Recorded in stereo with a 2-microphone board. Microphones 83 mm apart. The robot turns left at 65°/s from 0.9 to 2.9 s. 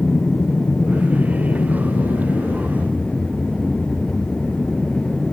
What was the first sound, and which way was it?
An aircraft, 145° left.